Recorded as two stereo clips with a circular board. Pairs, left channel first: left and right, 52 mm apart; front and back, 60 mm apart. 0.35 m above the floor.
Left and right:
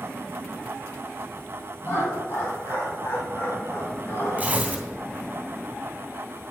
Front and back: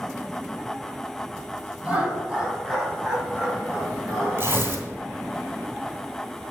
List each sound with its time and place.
1.8 s laughter: 105° left, 3 m; by 4.5 s 70° left, 2.5 m
4.4 s tearing paper: 140° right, 1.9 m